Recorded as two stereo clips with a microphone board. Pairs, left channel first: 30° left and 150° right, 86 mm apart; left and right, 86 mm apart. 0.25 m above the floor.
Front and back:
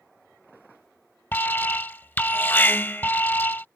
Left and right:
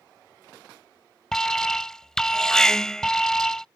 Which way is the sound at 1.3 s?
20° left.